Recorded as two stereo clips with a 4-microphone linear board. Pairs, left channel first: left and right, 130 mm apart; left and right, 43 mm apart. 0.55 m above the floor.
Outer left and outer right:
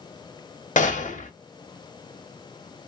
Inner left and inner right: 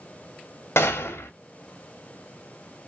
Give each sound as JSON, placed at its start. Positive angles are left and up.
{"t": 0.8, "sound": "a gunshot", "side_deg": 85, "distance_m": 0.8}